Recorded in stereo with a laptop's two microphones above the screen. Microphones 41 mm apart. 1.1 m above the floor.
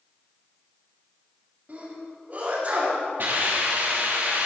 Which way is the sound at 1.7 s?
40° right (ahead or behind).